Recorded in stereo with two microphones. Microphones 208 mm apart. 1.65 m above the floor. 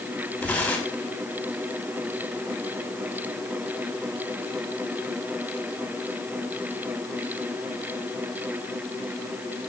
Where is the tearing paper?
5° left (ahead or behind), 6 m.